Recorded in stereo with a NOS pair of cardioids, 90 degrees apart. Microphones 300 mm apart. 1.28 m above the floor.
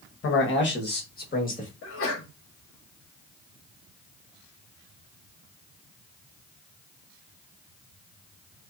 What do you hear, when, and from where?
0.2 s a man speaking: 45° left, 1.1 m; by 1.7 s 25° left, 1.8 m
1.8 s a sneeze: 45° left, 1.3 m